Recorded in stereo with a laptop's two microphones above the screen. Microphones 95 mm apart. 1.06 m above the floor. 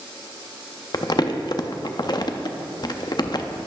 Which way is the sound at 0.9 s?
45° left (ahead or behind).